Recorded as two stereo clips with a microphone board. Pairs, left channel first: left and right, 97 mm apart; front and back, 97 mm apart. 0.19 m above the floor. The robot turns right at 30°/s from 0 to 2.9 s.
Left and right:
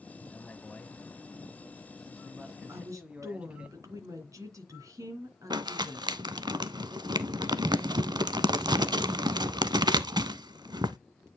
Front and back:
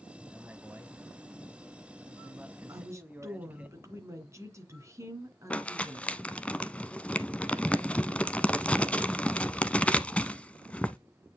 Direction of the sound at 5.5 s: 75° right.